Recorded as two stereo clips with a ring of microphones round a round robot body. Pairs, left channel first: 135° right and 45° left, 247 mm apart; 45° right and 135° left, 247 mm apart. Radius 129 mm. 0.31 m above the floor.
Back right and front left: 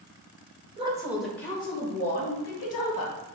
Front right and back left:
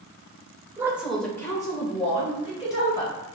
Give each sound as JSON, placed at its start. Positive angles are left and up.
{"t": 0.8, "sound": "a woman speaking", "azimuth_deg": 70, "distance_m": 1.1}